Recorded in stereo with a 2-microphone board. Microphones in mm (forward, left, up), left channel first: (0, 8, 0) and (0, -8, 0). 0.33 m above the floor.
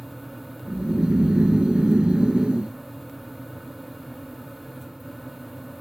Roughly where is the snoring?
Right.